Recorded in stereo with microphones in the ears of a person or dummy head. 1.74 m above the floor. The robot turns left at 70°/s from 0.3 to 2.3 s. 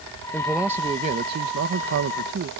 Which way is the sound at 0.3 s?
10° left.